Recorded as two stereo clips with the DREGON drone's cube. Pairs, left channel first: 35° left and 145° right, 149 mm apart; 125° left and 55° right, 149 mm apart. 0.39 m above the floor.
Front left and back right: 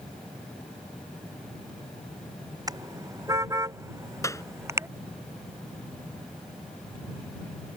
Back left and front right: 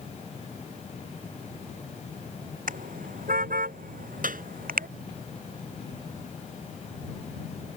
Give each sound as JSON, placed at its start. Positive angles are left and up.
{"t": 2.7, "sound": "a car horn", "azimuth_deg": -80}
{"t": 4.2, "sound": "a clap", "azimuth_deg": -35}